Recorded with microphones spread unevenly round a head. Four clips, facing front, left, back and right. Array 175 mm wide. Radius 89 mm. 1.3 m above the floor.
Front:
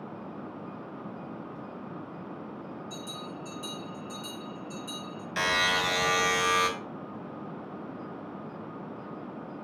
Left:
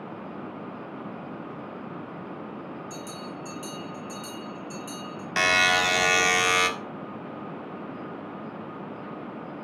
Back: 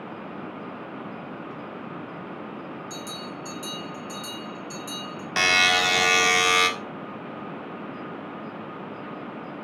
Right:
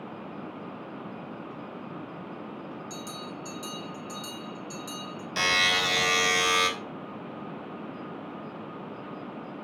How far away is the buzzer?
About 1.8 m.